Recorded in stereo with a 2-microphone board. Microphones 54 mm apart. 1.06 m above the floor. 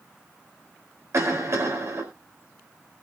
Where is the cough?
60° right (ahead or behind), 4 m.